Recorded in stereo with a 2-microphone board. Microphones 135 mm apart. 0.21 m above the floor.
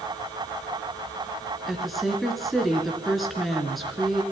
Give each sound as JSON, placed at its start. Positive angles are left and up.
{"t": 1.7, "sound": "a woman speaking", "side_deg": 0, "distance_m": 3.0}